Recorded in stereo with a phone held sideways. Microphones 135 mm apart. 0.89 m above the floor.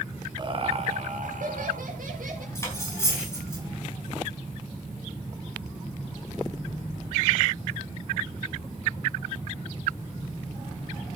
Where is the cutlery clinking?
20° left (ahead or behind), 4.5 m.